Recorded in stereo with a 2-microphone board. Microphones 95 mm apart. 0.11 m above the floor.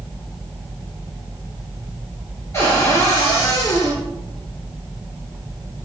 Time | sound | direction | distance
2.5 | a cupboard door | 30° left (ahead or behind) | 1.6 m